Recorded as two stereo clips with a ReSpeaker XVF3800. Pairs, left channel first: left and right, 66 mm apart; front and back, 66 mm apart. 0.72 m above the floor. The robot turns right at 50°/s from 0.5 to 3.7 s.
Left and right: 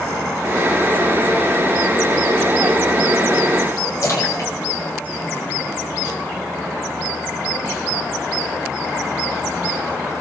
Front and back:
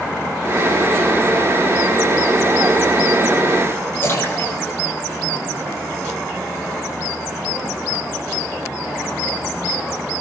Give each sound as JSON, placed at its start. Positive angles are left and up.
{"t": 4.0, "sound": "a splash", "azimuth_deg": 55, "distance_m": 8.0}